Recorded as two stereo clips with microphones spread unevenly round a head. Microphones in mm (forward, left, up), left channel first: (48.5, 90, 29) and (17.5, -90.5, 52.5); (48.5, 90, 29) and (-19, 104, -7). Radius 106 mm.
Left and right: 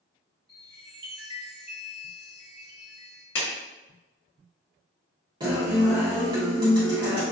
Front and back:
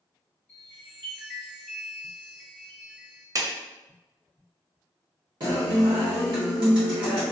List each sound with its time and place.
0.5 s a chime: 55° right, 1.6 m
3.4 s a clap: 125° left, 0.8 m
5.4 s a guitar: 170° right, 0.8 m